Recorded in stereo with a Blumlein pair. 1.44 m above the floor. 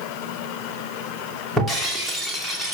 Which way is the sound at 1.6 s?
Straight ahead.